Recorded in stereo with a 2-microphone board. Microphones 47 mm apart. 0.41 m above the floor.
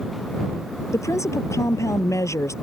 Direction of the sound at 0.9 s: 85° left.